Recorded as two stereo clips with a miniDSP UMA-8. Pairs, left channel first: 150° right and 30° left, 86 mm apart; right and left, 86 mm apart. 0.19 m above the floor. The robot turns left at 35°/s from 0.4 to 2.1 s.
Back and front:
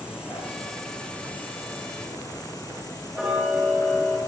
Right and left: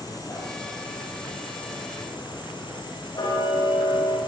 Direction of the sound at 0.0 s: 50° right.